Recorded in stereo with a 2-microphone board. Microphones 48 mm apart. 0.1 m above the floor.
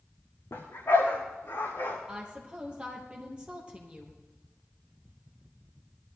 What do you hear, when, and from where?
0.5 s a dog barking: 70° left (ahead or behind), 3.5 m; by 2.0 s 55° left (ahead or behind), 5.5 m
2.1 s a woman speaking: 20° right (ahead or behind), 3 m